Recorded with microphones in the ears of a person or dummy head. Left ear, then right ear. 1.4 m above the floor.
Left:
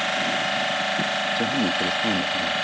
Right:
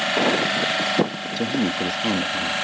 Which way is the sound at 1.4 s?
5° right (ahead or behind).